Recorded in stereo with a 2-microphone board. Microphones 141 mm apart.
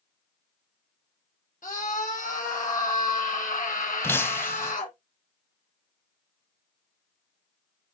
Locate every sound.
1.6 s a scream: 70° left (ahead or behind), 5 m
4.0 s breaking glass: 15° left (ahead or behind), 1.0 m